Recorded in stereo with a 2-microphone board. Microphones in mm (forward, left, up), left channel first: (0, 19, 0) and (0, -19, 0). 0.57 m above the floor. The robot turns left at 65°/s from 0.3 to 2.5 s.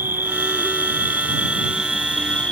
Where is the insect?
65° right; by 2.5 s 150° left.